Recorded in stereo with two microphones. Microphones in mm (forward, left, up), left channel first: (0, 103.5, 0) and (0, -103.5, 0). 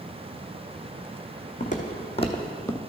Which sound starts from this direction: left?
Footsteps, at 1.6 s.